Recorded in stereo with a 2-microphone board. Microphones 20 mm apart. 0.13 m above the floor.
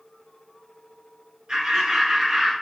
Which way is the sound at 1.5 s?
45° right (ahead or behind).